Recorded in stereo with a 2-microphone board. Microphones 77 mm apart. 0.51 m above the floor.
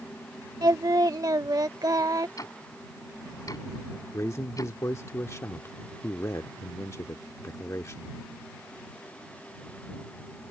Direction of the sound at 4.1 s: 40° left (ahead or behind).